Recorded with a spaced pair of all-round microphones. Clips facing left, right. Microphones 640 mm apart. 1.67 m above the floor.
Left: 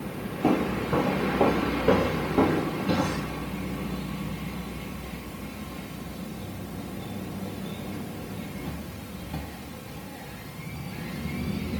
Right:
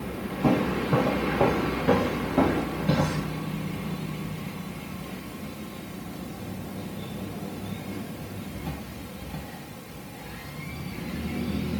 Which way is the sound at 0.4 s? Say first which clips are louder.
Right 1 dB; 30° right (ahead or behind).